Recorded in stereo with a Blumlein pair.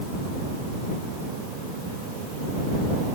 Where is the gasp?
No gasp in this recording.